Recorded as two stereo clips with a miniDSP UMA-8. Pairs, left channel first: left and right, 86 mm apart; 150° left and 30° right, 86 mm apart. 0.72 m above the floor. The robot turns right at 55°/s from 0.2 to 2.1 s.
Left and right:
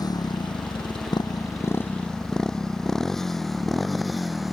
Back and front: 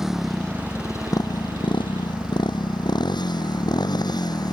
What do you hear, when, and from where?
0.0 s a motorcycle: 55° left; by 4.5 s straight behind